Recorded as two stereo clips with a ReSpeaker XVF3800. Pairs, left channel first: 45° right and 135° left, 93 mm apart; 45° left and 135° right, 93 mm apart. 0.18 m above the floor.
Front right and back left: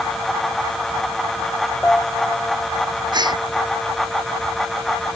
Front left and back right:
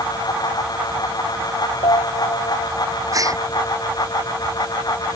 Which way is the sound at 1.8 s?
35° left.